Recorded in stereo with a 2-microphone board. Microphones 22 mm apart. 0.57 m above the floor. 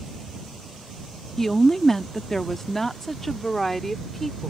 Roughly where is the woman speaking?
Centre.